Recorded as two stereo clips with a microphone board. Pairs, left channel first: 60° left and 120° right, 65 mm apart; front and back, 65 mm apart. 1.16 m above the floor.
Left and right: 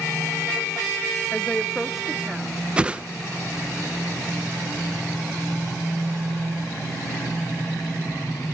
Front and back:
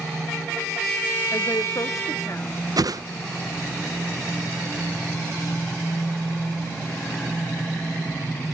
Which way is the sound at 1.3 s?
Straight ahead.